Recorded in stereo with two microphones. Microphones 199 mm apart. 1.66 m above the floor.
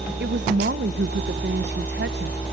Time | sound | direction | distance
0.2 | a woman speaking | 65° right (ahead or behind) | 1.1 m